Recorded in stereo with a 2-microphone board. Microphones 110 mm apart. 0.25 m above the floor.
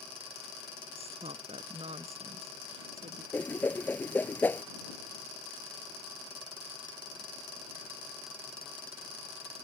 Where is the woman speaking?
70° right (ahead or behind).